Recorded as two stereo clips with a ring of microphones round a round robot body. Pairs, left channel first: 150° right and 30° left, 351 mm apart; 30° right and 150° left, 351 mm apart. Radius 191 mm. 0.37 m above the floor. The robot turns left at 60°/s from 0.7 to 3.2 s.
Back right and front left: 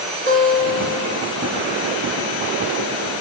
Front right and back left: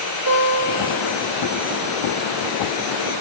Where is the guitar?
155° left, 2.5 m; by 1.2 s 125° left, 2.5 m.